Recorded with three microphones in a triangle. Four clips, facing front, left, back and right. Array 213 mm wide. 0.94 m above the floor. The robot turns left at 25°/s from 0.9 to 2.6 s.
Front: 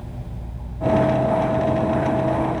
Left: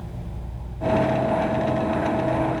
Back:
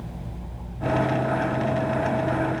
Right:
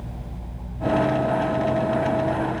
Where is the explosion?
No explosion in this recording.